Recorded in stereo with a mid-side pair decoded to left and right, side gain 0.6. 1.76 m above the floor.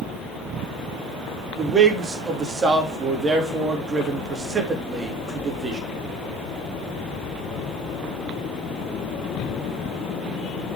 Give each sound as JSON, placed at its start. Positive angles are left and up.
{"t": 1.6, "sound": "a man speaking", "azimuth_deg": -30, "distance_m": 3.0}